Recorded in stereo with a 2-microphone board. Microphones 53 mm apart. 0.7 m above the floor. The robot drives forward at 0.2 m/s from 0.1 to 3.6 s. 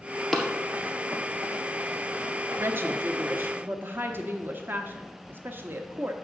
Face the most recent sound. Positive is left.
turn(degrees=-40)  # may be behind; listen again after turning